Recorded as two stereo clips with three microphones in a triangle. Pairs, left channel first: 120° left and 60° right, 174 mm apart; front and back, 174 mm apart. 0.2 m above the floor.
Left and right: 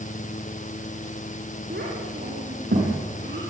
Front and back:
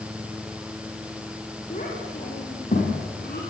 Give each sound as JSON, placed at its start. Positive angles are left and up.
{"t": 1.7, "sound": "a child speaking", "azimuth_deg": -45, "distance_m": 6.5}